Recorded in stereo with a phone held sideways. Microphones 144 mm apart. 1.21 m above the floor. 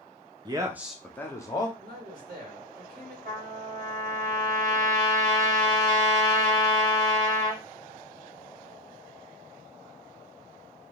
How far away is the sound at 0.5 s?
About 0.5 m.